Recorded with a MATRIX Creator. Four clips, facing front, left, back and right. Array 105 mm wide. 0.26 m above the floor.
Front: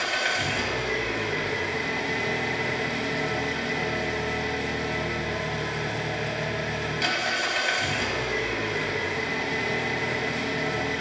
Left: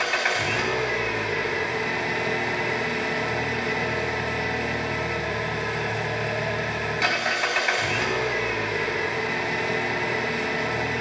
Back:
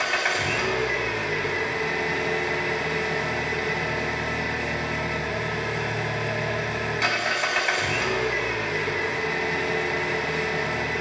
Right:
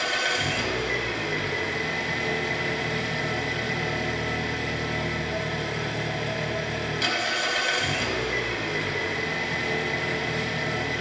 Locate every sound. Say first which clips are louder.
0.0 s an engine running: left 2 dB, back 2 dB; 115° left, 1.2 m